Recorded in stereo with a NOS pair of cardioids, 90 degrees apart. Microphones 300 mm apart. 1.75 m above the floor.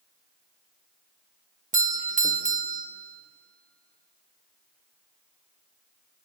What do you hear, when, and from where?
1.7 s a doorbell: 25° right, 2.0 m